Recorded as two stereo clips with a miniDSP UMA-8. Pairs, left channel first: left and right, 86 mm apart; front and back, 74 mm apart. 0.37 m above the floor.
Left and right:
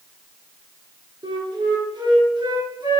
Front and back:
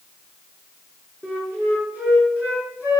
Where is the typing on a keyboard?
I don't hear typing on a keyboard.